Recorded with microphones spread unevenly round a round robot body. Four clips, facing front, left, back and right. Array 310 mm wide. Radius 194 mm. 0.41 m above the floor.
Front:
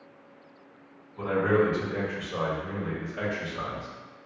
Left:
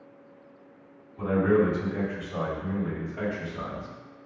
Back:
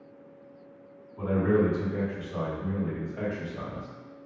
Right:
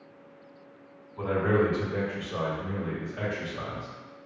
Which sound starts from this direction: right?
A man speaking, at 1.2 s.